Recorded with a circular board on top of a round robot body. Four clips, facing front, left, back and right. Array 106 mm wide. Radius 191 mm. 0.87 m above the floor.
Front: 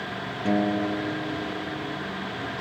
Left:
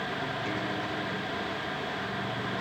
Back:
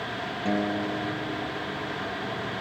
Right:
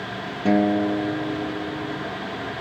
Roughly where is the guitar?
Right.